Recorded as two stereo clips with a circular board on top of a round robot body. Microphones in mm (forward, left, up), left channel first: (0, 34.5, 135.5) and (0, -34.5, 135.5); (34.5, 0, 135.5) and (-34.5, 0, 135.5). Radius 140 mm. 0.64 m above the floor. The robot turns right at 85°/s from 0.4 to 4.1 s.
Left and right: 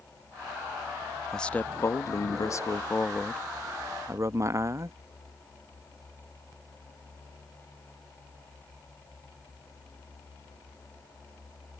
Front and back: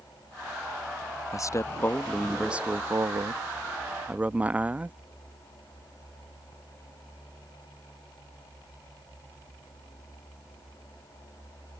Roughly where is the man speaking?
Ahead.